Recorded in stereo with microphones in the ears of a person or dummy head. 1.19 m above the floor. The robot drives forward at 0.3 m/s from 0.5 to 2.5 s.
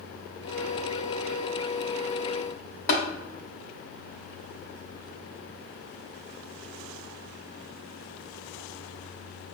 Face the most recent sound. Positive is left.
turn(degrees=50)  # may be behind; listen again after turning